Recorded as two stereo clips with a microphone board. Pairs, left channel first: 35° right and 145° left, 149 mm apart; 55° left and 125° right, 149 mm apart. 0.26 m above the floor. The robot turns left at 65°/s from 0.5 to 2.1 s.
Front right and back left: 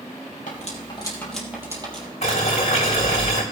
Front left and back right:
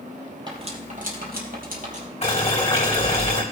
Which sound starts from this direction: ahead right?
Cutlery clinking, at 0.5 s.